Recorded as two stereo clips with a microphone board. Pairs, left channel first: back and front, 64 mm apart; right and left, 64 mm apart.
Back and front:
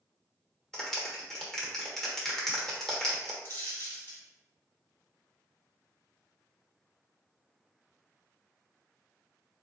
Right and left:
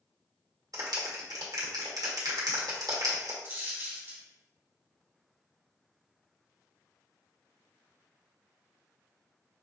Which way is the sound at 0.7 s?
95° left.